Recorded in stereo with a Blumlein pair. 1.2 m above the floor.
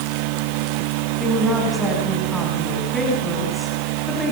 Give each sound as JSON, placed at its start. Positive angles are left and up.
{"t": 1.2, "sound": "a woman speaking", "azimuth_deg": -5, "distance_m": 8.5}